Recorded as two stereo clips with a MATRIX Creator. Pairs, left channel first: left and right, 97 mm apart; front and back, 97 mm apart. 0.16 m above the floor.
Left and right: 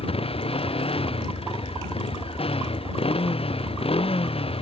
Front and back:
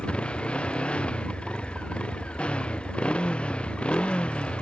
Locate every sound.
0.0 s a motorcycle: 80° left